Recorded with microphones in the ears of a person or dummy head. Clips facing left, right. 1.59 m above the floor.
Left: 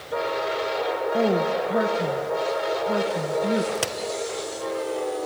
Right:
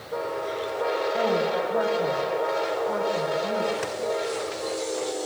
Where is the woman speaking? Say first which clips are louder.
Left 4 dB; 30° left (ahead or behind), 1.0 m.